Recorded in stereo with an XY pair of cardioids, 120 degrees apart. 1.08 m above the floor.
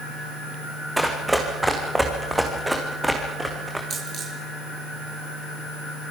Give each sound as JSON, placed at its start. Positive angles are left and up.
{"t": 1.0, "sound": "running footsteps", "azimuth_deg": -10, "distance_m": 4.0}
{"t": 3.9, "sound": "a dropped coin", "azimuth_deg": -45, "distance_m": 8.0}